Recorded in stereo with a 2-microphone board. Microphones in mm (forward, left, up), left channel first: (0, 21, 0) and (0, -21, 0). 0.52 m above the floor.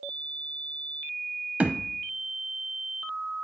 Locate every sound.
1.6 s a thud: 40° right (ahead or behind), 0.8 m